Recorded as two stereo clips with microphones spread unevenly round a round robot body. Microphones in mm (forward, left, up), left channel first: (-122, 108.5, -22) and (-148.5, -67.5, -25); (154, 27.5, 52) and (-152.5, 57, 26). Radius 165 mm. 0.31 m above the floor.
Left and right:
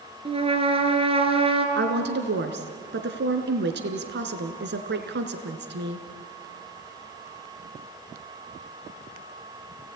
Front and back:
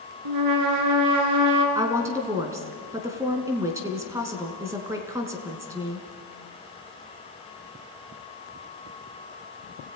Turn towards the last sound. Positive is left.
turn(degrees=-105)